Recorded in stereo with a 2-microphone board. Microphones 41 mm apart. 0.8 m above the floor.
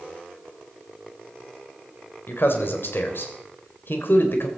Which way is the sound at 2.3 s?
60° left (ahead or behind).